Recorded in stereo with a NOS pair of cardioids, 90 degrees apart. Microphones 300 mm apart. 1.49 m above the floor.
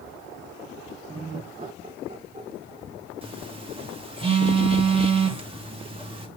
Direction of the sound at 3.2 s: 20° right.